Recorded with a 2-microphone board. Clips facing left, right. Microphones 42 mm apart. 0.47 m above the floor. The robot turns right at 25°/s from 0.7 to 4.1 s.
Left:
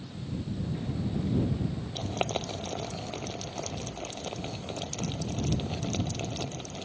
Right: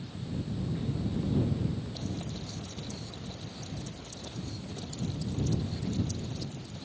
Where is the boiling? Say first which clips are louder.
Left 7 dB; 60° left (ahead or behind); by 6.9 s 70° left (ahead or behind).